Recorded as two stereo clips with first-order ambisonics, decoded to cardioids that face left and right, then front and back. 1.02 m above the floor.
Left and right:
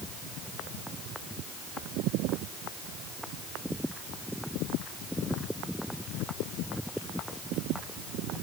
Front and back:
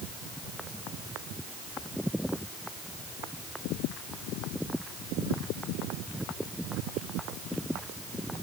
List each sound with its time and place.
Only background noise.